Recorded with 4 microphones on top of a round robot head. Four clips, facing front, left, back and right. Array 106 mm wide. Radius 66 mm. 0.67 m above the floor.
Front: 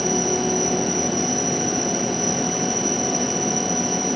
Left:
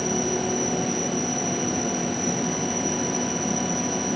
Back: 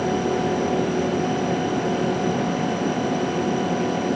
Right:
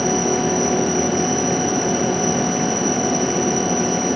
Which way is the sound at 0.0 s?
15° right.